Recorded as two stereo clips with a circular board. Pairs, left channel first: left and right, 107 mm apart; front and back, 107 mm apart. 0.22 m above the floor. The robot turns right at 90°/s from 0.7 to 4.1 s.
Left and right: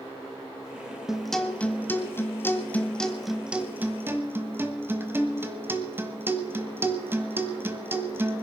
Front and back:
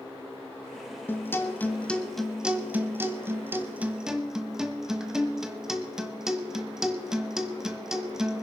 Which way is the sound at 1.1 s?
15° right.